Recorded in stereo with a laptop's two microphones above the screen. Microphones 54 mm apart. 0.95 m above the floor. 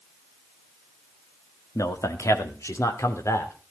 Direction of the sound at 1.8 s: 70° left (ahead or behind).